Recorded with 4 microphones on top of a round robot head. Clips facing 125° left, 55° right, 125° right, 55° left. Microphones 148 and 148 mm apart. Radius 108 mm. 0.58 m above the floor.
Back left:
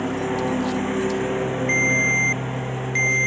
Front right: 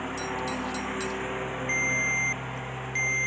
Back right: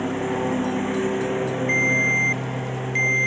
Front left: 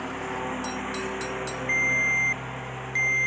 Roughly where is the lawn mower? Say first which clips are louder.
Back left 9 dB, back right 9 dB; behind.